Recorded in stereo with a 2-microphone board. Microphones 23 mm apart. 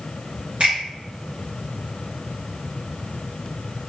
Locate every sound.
0.6 s a finger snap: 55° right (ahead or behind), 1.5 m